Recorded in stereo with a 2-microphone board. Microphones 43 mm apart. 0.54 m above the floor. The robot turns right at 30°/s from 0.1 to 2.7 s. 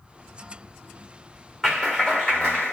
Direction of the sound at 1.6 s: 10° left.